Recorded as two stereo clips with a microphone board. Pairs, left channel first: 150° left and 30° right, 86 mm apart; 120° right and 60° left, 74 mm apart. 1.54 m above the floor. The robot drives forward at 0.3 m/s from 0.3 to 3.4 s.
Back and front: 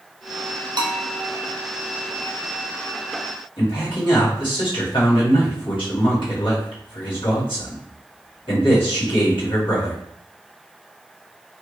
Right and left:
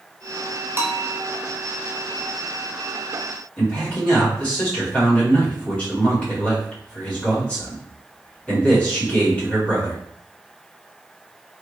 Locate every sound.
0.8 s a bell: straight ahead, 0.7 m
3.6 s a man speaking: 165° left, 2 m